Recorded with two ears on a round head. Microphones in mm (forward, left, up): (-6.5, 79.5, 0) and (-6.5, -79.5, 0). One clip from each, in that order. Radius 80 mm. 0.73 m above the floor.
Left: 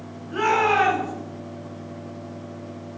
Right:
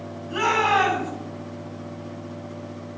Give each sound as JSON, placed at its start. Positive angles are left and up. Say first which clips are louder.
{"t": 0.3, "sound": "a shout", "louder": "even", "side_deg": -75, "distance_m": 7.0}